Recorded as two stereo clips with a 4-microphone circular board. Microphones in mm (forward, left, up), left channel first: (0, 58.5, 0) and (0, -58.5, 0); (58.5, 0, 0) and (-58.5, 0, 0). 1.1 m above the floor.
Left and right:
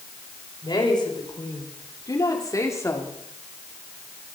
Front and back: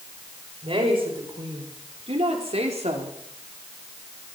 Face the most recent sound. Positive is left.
turn(degrees=160)